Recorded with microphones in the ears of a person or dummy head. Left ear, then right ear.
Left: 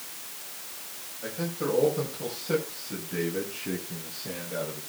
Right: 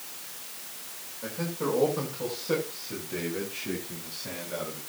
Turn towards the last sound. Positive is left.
turn(degrees=-60)  # may be behind; listen again after turning